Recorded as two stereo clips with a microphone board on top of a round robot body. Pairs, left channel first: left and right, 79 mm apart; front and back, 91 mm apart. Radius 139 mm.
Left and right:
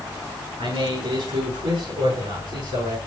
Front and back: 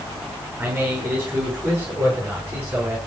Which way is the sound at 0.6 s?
110° right.